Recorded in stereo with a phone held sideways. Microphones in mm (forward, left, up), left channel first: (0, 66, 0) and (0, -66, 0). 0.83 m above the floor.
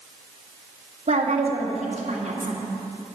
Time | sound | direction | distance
1.1 | a woman speaking | 70° right (ahead or behind) | 2.5 m